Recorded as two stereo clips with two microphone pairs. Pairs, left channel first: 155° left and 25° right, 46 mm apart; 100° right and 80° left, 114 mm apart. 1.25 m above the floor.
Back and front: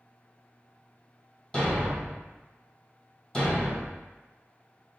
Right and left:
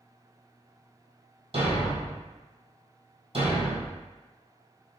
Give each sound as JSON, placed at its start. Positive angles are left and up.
{"t": 1.5, "sound": "a thud", "azimuth_deg": 80, "distance_m": 2.0}